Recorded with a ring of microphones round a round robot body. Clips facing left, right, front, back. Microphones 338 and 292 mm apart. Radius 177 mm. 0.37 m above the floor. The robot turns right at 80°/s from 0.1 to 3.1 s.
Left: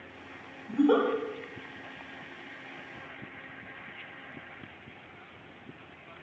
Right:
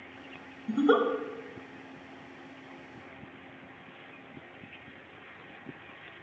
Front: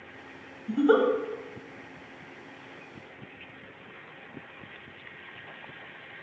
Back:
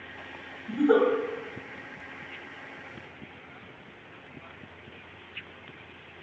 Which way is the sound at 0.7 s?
65° right.